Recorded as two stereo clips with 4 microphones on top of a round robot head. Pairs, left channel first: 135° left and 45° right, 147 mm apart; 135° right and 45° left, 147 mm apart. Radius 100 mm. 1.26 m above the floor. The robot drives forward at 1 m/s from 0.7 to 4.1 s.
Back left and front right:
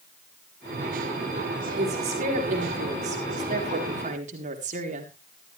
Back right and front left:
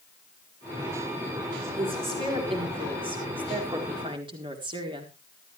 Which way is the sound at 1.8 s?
5° right.